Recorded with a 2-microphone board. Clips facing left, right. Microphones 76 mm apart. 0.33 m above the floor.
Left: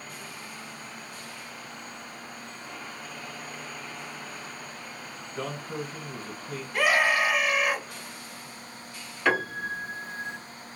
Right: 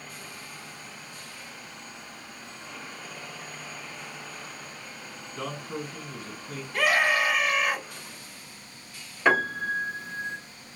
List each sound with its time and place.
5.3 s a man speaking: 35° left (ahead or behind), 1.8 m
6.7 s a scream: 10° left (ahead or behind), 1.3 m
9.2 s a piano: 20° right (ahead or behind), 1.5 m